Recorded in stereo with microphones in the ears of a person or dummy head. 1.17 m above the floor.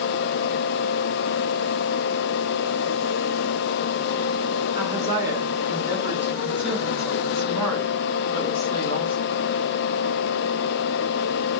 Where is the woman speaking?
15° right (ahead or behind), 4 m; by 9.4 s 30° left (ahead or behind), 2 m.